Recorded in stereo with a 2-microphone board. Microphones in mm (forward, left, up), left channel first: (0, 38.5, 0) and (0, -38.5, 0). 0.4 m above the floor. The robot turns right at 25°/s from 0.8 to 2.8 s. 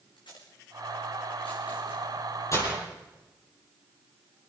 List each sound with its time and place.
0.2 s tape being pulled: 85° left, 5.5 m; by 2.0 s 65° left (ahead or behind), 5.5 m
2.5 s breaking glass: 40° left (ahead or behind), 6.5 m; by 2.8 s 35° left (ahead or behind), 6.5 m